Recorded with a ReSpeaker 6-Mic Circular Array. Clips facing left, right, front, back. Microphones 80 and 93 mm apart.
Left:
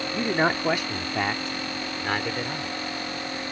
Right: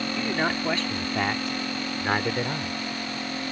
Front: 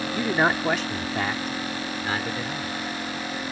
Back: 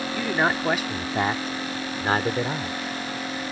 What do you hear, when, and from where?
0.1 s a man speaking: 60° left; by 2.8 s 155° right